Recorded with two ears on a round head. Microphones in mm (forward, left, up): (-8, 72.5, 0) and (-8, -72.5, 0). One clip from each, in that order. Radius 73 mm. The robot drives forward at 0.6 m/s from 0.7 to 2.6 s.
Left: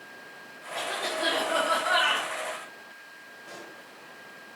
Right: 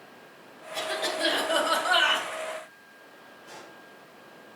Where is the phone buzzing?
No phone buzzing in this recording.